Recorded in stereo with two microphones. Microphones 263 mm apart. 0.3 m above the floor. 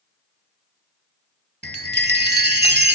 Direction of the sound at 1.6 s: 40° right (ahead or behind).